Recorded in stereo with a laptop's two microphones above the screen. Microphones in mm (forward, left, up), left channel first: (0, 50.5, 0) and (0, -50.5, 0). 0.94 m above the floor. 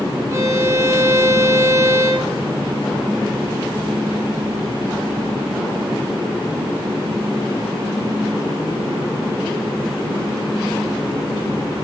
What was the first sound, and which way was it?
A violin, 30° right (ahead or behind).